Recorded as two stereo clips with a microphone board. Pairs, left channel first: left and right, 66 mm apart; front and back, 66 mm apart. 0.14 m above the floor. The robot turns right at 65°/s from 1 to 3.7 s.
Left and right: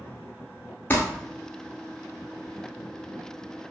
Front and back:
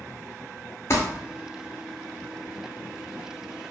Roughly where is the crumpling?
Ahead left.